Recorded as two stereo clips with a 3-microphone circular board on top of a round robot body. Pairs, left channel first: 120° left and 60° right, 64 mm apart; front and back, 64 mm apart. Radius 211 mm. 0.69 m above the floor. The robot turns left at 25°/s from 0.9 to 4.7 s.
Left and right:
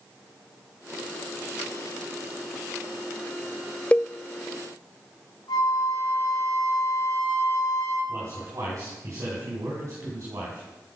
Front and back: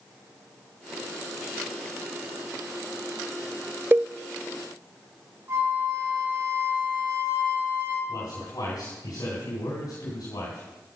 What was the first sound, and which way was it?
A cowbell, 170° left.